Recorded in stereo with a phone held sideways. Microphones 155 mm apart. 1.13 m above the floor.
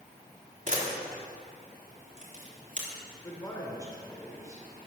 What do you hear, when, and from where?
0.7 s a camera shutter: 55° right (ahead or behind), 3.5 m
3.2 s a man speaking: 20° left (ahead or behind), 4 m